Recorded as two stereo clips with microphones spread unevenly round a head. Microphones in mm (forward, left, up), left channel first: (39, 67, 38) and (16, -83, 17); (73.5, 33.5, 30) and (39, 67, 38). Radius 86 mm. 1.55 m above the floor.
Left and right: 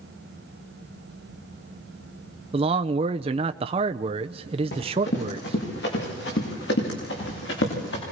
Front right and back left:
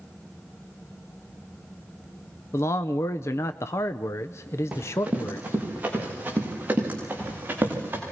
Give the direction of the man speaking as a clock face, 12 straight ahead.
2 o'clock.